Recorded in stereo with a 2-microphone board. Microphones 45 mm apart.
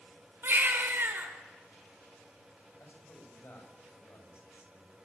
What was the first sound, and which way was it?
A baby crying, 55° right (ahead or behind).